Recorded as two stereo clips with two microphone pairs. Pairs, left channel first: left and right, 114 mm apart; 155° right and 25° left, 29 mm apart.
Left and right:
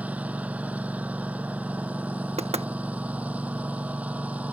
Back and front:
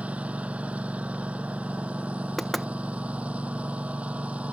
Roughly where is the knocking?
Right.